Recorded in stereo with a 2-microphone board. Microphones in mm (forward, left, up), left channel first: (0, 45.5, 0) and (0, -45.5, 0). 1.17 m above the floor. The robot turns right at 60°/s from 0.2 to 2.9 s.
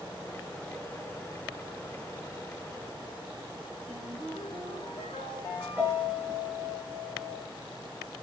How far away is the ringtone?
About 6 m.